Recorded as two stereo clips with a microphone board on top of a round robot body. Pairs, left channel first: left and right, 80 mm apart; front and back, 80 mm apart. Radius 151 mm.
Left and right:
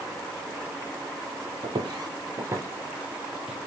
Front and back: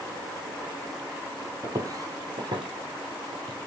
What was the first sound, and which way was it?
Footsteps, 125° right.